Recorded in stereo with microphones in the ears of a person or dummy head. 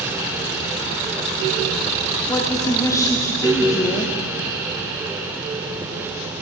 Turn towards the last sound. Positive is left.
turn(degrees=15)  # may be behind; listen again after turning